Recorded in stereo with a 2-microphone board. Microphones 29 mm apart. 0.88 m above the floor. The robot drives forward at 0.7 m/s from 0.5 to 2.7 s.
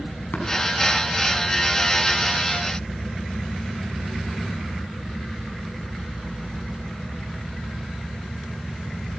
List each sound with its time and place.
0.3 s tapping: 80° left, 6 m